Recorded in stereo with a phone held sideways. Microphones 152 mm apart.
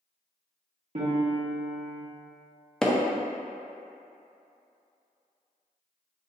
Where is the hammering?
5° left (ahead or behind), 0.6 m.